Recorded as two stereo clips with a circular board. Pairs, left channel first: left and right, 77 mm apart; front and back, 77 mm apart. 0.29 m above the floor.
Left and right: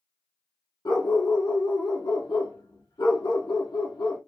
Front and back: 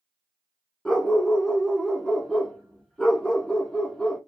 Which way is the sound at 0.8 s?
80° left.